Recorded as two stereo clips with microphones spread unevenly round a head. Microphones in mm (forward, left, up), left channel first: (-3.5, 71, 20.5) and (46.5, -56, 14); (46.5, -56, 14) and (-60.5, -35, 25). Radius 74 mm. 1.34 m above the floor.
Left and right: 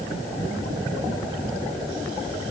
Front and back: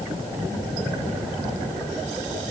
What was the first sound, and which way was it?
Only background noise.